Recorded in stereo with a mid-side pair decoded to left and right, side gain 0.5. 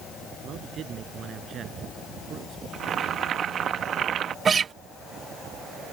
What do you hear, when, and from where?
0.4 s a man speaking: 55° right
2.7 s boiling: 55° right
4.5 s a guitar: 40° right